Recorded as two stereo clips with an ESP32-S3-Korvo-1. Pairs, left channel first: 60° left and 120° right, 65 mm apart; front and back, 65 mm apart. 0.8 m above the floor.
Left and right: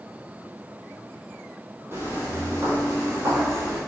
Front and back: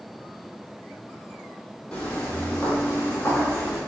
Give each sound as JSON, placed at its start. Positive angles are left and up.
{"t": 1.9, "sound": "footsteps", "azimuth_deg": -70, "distance_m": 1.5}